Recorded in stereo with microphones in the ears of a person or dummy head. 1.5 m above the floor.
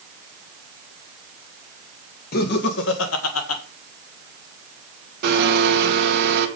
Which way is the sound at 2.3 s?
55° left (ahead or behind).